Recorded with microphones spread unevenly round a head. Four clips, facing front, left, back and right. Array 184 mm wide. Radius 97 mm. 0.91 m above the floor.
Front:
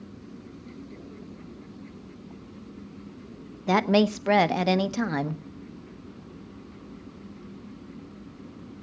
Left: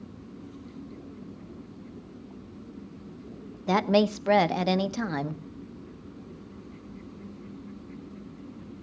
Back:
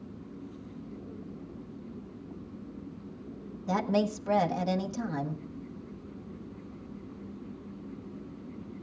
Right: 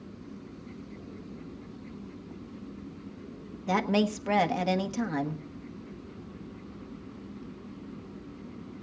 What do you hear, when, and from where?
3.7 s a woman speaking: 20° left, 0.9 m